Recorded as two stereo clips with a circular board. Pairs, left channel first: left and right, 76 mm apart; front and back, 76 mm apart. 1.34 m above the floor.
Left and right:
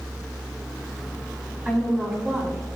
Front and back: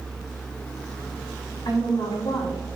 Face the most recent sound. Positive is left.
turn(degrees=-20)